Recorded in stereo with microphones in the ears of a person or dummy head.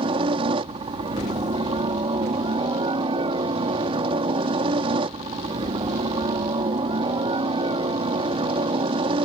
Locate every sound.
0.0 s a helicopter: 30° right (ahead or behind)